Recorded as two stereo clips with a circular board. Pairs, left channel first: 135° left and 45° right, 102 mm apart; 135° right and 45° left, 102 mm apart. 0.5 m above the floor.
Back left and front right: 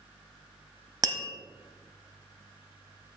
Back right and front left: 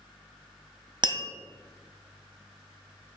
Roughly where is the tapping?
Ahead.